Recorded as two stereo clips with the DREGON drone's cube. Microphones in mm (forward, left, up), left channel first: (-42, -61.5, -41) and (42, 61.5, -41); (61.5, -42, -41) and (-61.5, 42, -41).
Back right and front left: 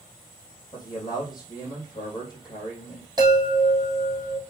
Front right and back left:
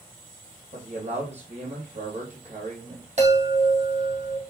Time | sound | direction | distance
0.7 | a man speaking | 175° left | 3 m
3.2 | a chime | 115° left | 3.5 m